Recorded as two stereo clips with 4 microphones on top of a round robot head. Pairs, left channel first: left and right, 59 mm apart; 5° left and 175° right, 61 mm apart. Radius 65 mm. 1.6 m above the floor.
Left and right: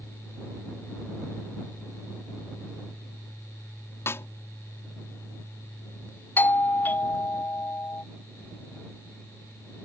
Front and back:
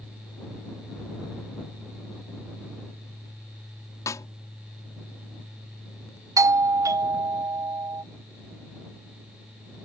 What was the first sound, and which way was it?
A snare drum, 40° left.